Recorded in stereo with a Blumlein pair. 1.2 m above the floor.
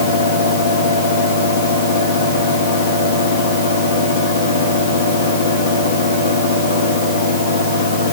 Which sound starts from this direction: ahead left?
A fan, at 0.0 s.